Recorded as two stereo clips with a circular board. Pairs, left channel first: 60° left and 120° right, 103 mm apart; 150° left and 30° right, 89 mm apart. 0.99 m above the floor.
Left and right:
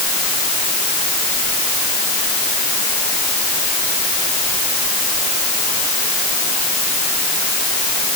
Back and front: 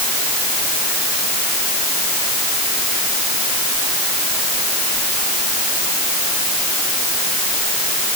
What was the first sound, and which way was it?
Only background noise.